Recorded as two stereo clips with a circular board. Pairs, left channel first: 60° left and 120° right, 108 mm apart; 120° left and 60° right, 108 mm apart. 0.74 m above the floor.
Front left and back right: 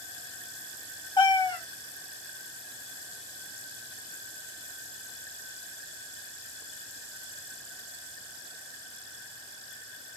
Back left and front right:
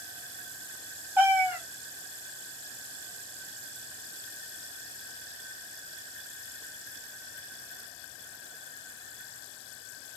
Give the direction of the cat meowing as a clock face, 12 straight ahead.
12 o'clock.